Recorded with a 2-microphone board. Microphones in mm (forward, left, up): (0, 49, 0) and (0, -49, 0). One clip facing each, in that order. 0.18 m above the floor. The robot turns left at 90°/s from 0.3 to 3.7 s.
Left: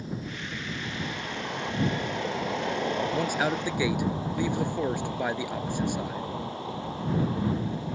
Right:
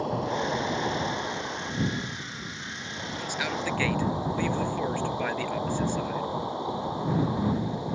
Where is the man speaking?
70° left; by 6.3 s 15° left.